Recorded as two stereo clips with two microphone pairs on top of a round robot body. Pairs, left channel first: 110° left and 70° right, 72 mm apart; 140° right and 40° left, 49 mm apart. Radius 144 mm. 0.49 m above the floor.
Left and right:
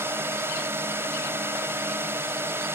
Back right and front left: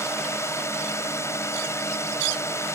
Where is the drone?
120° right.